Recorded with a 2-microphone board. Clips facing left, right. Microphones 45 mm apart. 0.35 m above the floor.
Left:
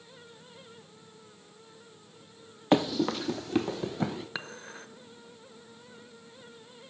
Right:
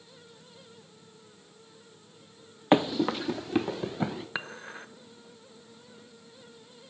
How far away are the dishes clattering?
About 0.7 m.